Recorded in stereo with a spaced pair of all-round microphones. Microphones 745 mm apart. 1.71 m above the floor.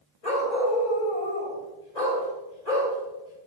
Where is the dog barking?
60° left (ahead or behind), 2.5 m.